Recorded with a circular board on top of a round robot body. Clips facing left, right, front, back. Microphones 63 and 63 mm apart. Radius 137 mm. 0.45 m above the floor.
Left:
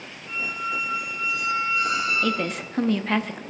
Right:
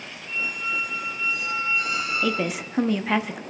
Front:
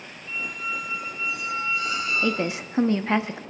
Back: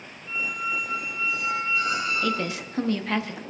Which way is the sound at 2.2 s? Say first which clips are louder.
Even, front 2 dB; 15° right.